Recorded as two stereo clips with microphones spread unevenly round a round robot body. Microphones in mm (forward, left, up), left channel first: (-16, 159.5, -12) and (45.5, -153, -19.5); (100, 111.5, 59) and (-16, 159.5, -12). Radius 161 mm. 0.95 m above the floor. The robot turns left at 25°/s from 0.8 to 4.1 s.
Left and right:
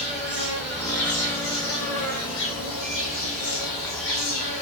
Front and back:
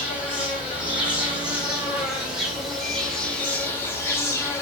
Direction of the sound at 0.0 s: 160° left.